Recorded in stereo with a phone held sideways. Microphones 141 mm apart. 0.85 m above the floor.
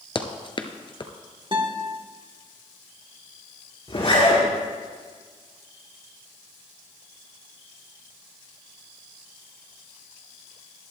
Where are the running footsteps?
40° left (ahead or behind), 1.0 m.